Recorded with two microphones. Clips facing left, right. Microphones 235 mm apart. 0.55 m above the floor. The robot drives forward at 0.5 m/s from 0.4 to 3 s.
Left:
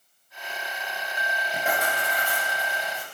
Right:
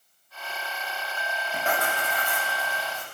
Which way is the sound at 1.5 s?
15° left (ahead or behind).